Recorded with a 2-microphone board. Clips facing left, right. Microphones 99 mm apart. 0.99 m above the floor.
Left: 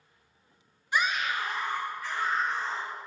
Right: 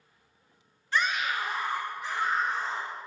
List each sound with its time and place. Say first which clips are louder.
0.9 s a scream: even; 15° left (ahead or behind), 0.6 m; by 2.9 s 30° right (ahead or behind), 2 m